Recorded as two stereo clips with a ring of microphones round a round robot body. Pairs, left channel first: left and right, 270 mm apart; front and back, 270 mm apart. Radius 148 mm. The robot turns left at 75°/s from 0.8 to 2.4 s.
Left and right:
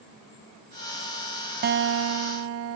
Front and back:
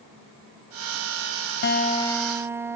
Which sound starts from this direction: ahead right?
A guitar, at 1.6 s.